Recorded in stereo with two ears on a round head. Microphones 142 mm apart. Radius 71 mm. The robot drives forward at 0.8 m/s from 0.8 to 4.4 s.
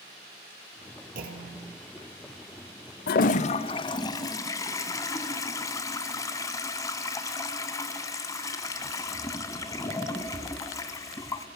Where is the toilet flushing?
65° left (ahead or behind), 0.5 m; by 11.5 s 20° left (ahead or behind), 1.3 m.